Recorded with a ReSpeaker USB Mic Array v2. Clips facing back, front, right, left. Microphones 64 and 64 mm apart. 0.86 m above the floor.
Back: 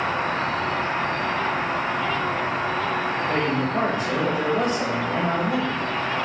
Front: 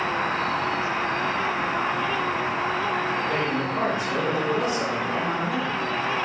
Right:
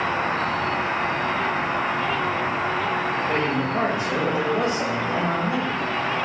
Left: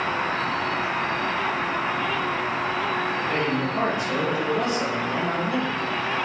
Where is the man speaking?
145° right, 1.2 m.